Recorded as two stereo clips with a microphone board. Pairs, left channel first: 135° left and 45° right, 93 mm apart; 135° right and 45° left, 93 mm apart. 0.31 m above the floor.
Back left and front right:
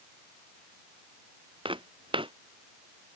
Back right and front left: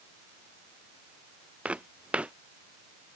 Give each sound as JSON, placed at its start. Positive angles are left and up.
{"t": 1.6, "sound": "footsteps", "azimuth_deg": -30}